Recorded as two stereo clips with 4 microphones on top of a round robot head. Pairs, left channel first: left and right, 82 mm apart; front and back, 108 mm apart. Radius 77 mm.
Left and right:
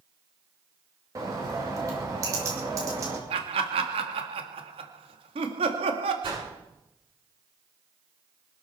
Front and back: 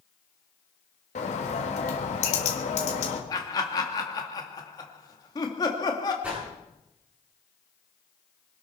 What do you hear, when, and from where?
1.1 s a bird: 30° right, 2.5 m
3.3 s laughter: 65° right, 2.0 m
6.2 s a whoosh: 105° right, 9.5 m